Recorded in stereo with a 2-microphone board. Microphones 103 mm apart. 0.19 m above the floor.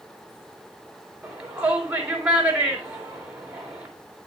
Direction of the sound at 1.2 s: 15° right (ahead or behind).